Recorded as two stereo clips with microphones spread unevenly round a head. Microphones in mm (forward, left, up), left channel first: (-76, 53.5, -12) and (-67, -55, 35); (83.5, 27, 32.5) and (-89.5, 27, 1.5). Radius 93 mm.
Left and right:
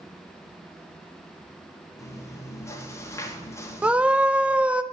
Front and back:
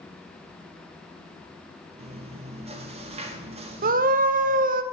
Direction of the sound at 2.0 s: 140° left.